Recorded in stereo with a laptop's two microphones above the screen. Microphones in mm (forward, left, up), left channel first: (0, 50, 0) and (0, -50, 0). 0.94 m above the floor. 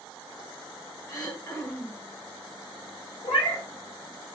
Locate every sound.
1.1 s throat clearing: 35° left (ahead or behind), 1.6 m
3.2 s a cat meowing: 70° left (ahead or behind), 1.5 m